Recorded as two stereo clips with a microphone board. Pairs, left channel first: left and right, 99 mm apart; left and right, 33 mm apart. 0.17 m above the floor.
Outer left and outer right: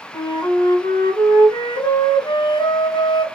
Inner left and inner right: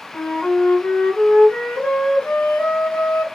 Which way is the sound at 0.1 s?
45° left (ahead or behind).